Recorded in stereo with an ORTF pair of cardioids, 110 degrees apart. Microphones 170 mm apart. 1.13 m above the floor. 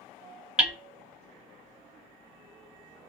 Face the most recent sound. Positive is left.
turn(degrees=-5)